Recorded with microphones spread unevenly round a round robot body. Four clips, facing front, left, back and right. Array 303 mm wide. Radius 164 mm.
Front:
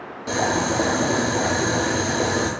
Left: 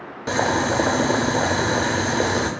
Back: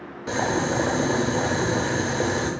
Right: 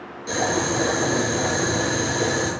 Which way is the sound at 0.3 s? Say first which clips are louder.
Left 2 dB, front 2 dB; 65° left.